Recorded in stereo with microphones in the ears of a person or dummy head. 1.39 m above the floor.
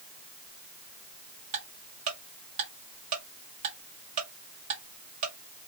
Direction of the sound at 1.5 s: 20° right (ahead or behind).